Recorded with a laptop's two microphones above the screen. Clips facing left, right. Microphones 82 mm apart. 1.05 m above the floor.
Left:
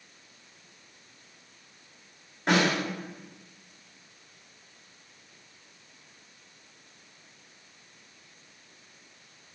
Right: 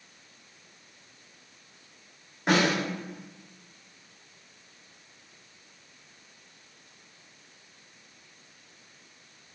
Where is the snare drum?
5° right (ahead or behind), 1.5 m.